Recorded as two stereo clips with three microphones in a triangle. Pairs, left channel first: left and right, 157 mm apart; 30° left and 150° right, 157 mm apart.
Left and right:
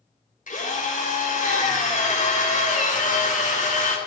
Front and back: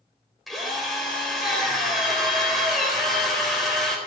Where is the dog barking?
I don't hear a dog barking.